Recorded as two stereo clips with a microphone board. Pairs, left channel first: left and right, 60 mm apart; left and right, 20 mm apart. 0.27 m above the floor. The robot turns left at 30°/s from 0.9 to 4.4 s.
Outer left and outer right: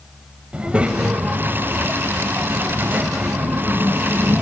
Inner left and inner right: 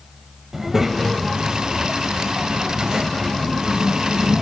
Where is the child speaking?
45° right, 0.6 m; by 4.4 s 150° right, 0.6 m.